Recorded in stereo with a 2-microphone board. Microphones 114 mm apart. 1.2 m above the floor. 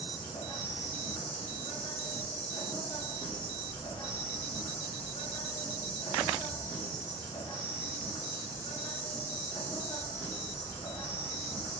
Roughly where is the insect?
Left.